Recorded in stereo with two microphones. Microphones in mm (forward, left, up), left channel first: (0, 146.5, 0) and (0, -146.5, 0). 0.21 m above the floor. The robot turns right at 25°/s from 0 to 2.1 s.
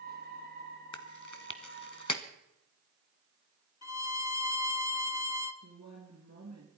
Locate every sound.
0.9 s chewing: 65° left (ahead or behind), 1.0 m; by 2.2 s 70° left (ahead or behind), 1.0 m
3.8 s a violin: 65° left (ahead or behind), 0.9 m
5.6 s a woman speaking: 60° right (ahead or behind), 3 m